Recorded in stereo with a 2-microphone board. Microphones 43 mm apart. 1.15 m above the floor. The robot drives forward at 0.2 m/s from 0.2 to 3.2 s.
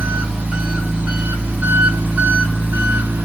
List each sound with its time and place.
0.0 s an engine running: 35° right (ahead or behind), 1.9 m; by 3.2 s 45° right (ahead or behind), 1.5 m